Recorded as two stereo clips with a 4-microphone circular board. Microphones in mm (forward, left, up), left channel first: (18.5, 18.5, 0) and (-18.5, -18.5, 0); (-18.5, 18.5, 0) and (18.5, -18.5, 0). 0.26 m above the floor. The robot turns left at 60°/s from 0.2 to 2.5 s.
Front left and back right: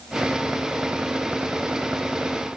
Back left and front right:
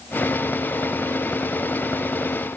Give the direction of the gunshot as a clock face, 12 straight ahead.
I don't hear a gunshot.